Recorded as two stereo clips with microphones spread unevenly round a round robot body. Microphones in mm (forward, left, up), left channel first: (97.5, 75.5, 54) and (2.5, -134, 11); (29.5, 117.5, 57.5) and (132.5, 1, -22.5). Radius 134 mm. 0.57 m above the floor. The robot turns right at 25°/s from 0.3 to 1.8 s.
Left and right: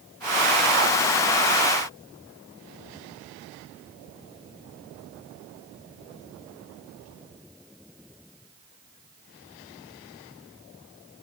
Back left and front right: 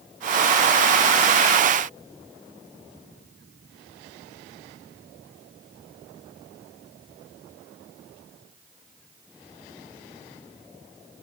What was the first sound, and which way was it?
Only background noise.